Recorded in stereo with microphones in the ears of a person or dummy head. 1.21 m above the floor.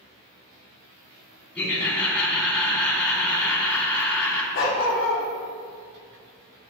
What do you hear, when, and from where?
1.6 s laughter: 5° left (ahead or behind), 2.5 m
4.5 s a dog barking: 55° left (ahead or behind), 1.1 m